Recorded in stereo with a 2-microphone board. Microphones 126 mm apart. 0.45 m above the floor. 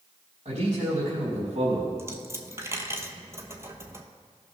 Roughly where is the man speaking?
Right.